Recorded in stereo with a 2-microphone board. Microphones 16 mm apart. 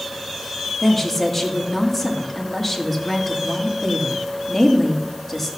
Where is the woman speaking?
5° left (ahead or behind), 1.7 m.